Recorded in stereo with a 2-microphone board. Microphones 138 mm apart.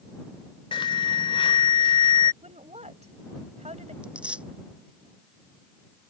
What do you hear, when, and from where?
0.7 s an alarm: 35° left (ahead or behind)
2.4 s a woman speaking: 55° right (ahead or behind)
4.0 s tearing paper: 10° right (ahead or behind)